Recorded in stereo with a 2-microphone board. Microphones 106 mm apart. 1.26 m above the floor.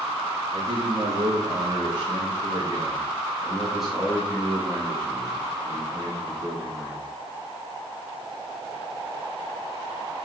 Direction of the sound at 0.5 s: 65° right (ahead or behind).